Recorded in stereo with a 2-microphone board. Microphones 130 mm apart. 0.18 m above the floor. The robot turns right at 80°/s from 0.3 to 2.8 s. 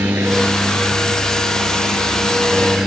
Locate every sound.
0.0 s a helicopter: 15° right; by 2.9 s 175° right